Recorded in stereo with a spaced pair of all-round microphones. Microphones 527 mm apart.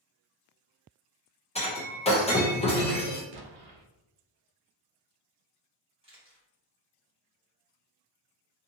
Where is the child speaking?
No child speaking in this recording.